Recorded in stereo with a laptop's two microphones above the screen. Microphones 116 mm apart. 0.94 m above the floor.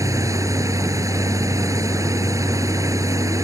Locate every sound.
0.0 s a machine running: 25° right (ahead or behind)